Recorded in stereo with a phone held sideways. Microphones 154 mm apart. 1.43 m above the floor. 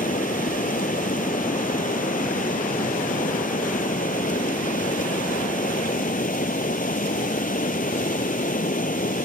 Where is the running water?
65° left (ahead or behind).